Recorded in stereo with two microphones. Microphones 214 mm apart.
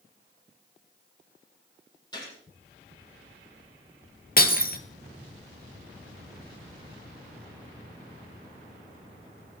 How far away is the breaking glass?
About 0.8 m.